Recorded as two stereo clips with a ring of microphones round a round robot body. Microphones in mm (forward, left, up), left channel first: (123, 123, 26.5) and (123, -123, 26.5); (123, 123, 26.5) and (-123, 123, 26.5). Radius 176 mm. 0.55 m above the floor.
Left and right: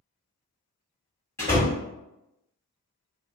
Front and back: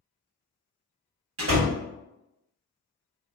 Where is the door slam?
170° left, 1.0 m.